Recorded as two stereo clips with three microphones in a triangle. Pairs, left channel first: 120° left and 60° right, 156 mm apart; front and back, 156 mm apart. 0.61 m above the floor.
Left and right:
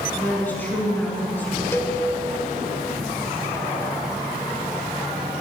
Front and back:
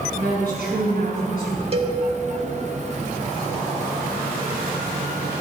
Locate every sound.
0.2 s a woman speaking: 165° right, 5.5 m
1.7 s a cowbell: 175° right, 1.3 m